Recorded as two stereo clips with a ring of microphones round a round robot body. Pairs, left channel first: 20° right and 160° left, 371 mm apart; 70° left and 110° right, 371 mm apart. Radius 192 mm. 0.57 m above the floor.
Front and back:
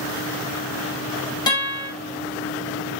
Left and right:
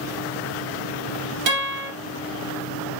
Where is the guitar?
100° right, 3.5 m.